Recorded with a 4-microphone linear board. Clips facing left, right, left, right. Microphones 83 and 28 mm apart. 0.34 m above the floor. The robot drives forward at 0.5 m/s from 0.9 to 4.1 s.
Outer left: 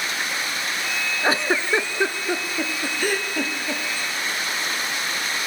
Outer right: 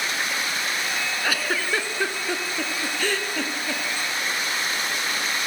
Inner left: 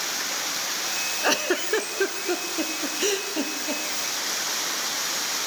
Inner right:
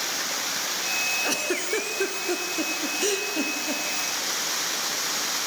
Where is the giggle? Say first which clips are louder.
Outer left 6 dB, inner left 3 dB; 35° left (ahead or behind), 0.5 m; by 3.8 s 10° left (ahead or behind), 1.7 m.